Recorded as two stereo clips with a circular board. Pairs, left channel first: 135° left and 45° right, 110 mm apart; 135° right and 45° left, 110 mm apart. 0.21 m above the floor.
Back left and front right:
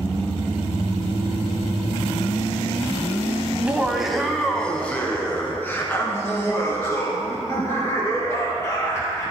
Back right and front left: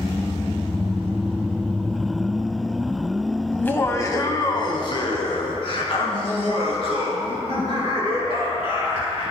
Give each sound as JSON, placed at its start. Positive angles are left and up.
{"t": 3.5, "sound": "laughter", "azimuth_deg": -85, "distance_m": 1.0}